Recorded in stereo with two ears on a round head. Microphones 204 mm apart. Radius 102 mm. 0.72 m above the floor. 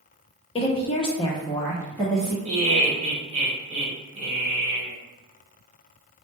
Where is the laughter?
30° right (ahead or behind), 1.4 m.